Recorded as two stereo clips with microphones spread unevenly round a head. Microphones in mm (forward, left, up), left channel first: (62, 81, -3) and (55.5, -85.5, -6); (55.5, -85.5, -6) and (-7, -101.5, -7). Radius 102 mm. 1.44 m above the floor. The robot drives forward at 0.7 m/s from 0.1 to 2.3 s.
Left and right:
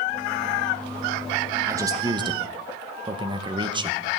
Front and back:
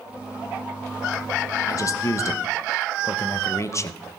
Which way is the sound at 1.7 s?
20° right.